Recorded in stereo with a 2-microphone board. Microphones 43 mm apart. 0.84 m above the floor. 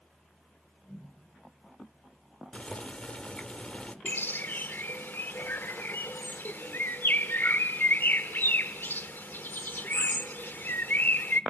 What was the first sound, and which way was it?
Boiling, 25° left (ahead or behind).